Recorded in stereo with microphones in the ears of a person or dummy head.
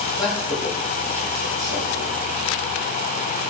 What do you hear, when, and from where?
0.2 s a man speaking: 5° right (ahead or behind), 4 m; by 2.2 s 35° right (ahead or behind), 4.5 m